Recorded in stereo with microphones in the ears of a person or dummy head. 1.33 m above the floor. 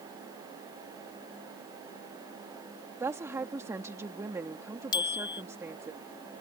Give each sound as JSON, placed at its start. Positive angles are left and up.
{"t": 3.0, "sound": "a woman speaking", "side_deg": -10}
{"t": 4.9, "sound": "a bicycle bell", "side_deg": 25}